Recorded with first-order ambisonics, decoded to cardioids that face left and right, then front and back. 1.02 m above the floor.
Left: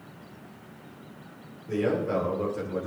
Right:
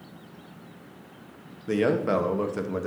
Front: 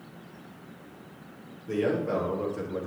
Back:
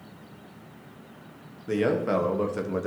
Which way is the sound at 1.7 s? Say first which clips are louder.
Right 3 dB, back 3 dB; 115° right.